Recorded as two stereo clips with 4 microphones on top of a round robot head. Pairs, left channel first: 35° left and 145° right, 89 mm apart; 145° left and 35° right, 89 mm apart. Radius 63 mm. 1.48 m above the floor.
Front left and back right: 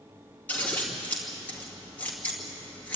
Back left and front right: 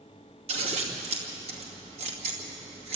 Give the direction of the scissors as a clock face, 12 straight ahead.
1 o'clock.